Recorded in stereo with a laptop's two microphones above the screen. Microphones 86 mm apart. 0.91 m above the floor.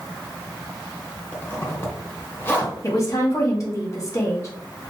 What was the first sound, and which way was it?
A zipper, 25° left (ahead or behind).